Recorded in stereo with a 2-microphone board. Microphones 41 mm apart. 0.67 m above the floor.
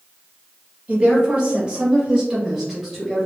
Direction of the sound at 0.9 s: 25° right (ahead or behind).